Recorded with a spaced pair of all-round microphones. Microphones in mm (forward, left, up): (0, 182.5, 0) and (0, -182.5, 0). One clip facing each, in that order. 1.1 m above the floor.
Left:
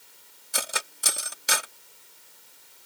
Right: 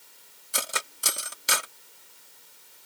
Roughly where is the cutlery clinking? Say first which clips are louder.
Even; centre.